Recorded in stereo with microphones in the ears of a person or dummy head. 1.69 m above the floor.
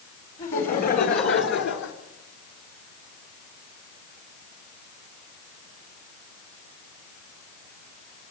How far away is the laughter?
About 5 m.